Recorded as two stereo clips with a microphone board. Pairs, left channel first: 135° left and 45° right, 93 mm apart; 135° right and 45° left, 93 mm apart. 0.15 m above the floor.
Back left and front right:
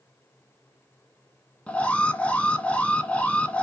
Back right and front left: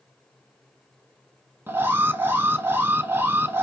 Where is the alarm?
75° left, 0.8 m.